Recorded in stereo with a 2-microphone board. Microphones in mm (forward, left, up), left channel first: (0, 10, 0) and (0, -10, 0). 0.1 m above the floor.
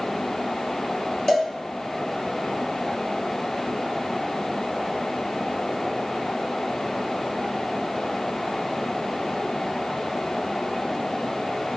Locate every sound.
1.3 s a cowbell: 20° left (ahead or behind), 1.4 m